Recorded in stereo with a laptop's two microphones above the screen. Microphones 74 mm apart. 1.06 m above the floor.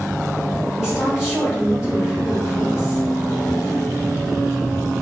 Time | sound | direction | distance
0.8 | a woman speaking | 10° right (ahead or behind) | 1.1 m